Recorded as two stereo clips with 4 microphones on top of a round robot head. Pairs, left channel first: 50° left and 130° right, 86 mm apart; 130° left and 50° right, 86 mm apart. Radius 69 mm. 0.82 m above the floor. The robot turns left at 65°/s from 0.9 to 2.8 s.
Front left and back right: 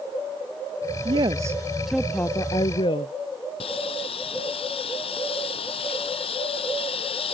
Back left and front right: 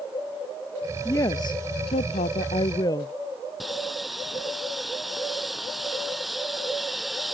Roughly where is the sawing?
Ahead left.